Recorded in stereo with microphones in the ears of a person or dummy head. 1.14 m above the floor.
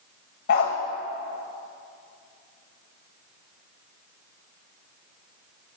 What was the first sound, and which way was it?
A dog barking, 45° left (ahead or behind).